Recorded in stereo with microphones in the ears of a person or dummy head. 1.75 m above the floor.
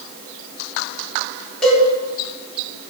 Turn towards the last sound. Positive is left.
turn(degrees=5)  # may be behind; listen again after turning